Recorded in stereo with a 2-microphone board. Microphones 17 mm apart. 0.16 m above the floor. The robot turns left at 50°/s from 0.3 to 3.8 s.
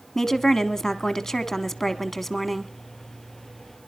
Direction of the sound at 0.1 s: 20° left (ahead or behind).